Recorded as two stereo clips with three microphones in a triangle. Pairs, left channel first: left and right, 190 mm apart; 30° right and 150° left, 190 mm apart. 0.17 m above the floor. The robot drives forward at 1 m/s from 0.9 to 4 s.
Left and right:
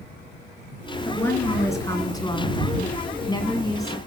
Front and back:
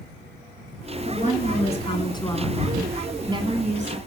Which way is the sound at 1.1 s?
10° left.